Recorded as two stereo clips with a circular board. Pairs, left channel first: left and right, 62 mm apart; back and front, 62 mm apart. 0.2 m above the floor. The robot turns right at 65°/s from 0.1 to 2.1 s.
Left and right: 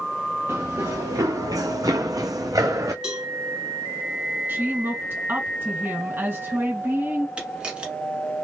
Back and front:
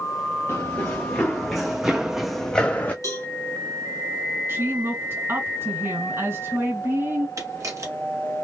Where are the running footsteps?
130° right, 1.3 m; by 2.9 s 120° right, 0.9 m.